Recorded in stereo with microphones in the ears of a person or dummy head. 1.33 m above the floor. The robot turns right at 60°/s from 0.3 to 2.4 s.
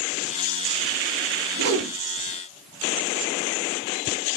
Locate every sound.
1.6 s a whoosh: 75° right (ahead or behind), 1.1 m; by 1.9 s 55° right (ahead or behind), 1.1 m